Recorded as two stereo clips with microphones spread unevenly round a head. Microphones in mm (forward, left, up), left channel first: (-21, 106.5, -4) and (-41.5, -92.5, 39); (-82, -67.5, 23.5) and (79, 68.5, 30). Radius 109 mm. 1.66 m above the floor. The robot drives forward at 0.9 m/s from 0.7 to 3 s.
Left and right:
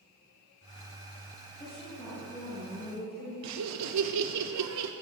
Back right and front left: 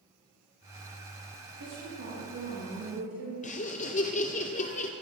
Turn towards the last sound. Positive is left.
turn(degrees=-80)